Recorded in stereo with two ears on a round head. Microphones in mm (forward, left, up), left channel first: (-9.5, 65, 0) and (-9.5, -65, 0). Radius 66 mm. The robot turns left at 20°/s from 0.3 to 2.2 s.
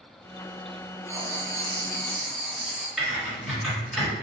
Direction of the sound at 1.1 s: 20° right (ahead or behind).